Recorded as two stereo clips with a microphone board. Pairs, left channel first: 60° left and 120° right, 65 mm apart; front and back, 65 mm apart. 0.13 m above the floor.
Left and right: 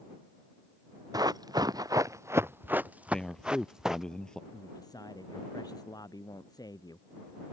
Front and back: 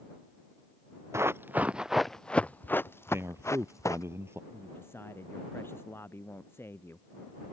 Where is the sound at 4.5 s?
50° left.